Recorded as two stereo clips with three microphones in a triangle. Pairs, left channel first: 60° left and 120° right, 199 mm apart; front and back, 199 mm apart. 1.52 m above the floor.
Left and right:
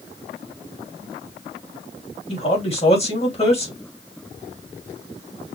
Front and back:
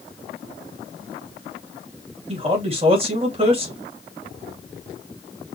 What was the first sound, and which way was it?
A man speaking, 120° left.